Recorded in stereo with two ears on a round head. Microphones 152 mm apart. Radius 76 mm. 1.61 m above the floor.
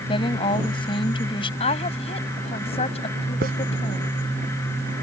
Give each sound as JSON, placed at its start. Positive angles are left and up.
{"t": 0.1, "sound": "a woman speaking", "side_deg": 30}
{"t": 1.6, "sound": "a woman speaking", "side_deg": 35}
{"t": 3.4, "sound": "a hiss", "side_deg": -60}